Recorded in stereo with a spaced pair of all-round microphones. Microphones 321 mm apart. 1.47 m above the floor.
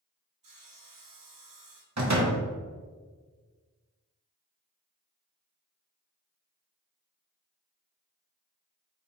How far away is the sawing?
About 0.7 m.